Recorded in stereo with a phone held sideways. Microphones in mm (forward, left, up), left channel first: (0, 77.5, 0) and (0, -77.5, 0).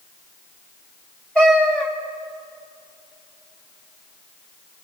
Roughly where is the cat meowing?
Centre.